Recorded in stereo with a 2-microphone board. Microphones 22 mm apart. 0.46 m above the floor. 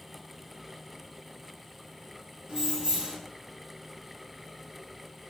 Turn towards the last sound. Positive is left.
turn(degrees=-45)  # may be behind; listen again after turning